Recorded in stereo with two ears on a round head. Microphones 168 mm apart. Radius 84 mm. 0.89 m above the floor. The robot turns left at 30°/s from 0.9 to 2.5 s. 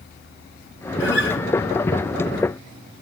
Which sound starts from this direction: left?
A guitar, at 1.0 s.